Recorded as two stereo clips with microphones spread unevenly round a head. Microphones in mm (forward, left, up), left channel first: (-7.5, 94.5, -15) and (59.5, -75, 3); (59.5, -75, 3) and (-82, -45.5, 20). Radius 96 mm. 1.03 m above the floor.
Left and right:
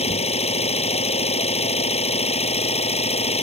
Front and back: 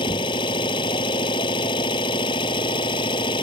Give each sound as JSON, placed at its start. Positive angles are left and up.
{"t": 0.0, "sound": "an engine running", "azimuth_deg": 55}